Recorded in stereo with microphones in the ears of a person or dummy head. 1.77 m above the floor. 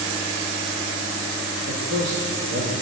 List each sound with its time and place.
1.7 s a man speaking: 80° right, 3 m